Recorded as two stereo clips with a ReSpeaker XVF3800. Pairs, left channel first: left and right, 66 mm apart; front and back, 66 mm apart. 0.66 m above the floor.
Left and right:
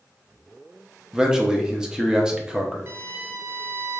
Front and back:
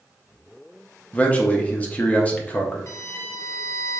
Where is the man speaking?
25° right, 0.6 m.